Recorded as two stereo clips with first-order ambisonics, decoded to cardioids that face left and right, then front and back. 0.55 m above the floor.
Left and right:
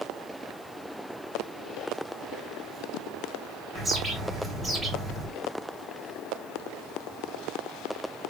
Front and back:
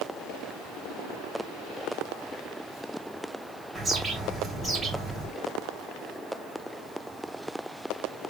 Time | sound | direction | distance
3.8 | a bird | 130° right | 1.0 m